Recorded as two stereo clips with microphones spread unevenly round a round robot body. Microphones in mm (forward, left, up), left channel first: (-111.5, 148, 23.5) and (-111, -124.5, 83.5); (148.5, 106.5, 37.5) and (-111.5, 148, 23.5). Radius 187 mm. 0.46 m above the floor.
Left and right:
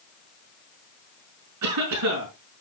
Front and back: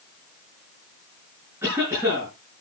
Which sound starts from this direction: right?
A cough, at 1.6 s.